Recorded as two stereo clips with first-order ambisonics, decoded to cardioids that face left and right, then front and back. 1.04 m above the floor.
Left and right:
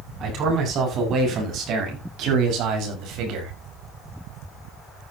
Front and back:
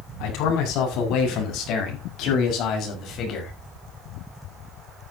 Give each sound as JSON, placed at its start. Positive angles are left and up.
{"t": 0.2, "sound": "a man speaking", "azimuth_deg": -35, "distance_m": 8.0}